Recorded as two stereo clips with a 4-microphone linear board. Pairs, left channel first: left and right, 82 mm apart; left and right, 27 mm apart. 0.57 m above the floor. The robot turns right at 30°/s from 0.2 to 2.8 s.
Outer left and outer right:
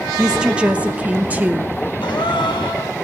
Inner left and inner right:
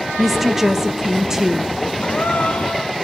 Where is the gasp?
80° left, 1.9 m; by 2.9 s 60° left (ahead or behind), 1.9 m.